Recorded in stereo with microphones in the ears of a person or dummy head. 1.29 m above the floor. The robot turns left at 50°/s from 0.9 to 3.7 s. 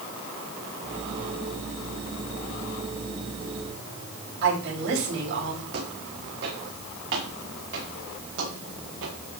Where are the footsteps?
55° right (ahead or behind), 5.5 m; by 9.2 s 75° right (ahead or behind), 8 m.